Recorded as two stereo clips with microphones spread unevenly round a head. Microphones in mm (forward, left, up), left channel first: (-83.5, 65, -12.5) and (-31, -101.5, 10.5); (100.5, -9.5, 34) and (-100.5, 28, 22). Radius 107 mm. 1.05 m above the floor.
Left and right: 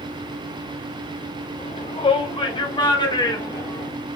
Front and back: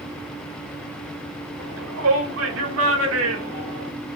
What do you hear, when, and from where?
1.6 s a shout: 160° left, 4.5 m; by 3.9 s straight behind, 4 m